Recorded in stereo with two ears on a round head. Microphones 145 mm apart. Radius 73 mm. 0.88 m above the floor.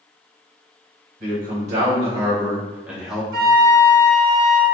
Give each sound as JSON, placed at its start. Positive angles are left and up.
{"t": 1.2, "sound": "a man speaking", "side_deg": -55, "distance_m": 1.6}
{"t": 3.3, "sound": "a flute", "side_deg": -60, "distance_m": 0.8}